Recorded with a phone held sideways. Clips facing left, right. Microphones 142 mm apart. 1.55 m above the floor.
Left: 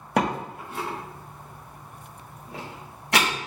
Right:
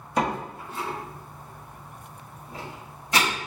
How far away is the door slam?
About 1.4 m.